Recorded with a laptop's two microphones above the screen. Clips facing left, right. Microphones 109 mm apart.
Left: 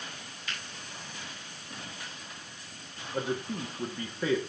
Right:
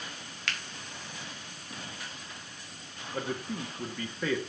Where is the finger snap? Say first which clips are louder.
Right 3 dB; 80° right, 1.3 m.